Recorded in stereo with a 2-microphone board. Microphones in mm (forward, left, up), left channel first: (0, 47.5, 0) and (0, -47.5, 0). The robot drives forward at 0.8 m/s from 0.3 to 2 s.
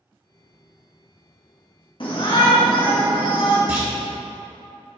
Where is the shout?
55° left (ahead or behind), 1.1 m.